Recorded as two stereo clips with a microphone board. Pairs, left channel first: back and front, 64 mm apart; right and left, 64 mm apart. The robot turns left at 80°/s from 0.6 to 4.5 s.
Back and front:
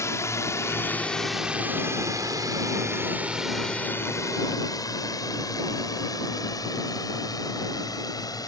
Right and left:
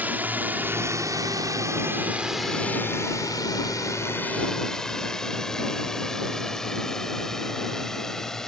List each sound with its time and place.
0.0 s a drone: 150° left; by 8.5 s 175° right